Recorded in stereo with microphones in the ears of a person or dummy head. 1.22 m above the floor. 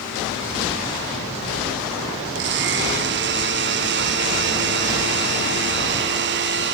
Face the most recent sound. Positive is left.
turn(degrees=-50)  # may be behind; listen again after turning